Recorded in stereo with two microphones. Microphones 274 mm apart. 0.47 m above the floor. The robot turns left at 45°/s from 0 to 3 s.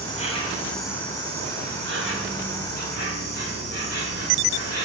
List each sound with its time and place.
0.0 s an insect: 35° left, 3 m; by 4.8 s 100° right, 3 m